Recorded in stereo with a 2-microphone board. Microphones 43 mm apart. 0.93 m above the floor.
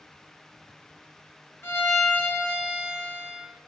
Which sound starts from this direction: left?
A violin, at 1.6 s.